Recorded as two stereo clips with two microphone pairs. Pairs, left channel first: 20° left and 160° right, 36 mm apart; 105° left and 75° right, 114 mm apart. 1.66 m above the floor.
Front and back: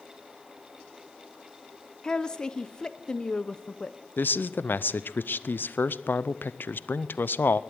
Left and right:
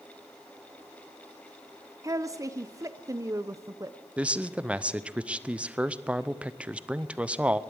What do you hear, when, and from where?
2.0 s a woman speaking: 30° right, 0.6 m
4.2 s a man speaking: 5° left, 0.6 m